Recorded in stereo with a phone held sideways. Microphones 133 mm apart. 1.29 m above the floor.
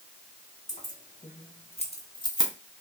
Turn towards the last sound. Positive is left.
turn(degrees=30)  # may be behind; listen again after turning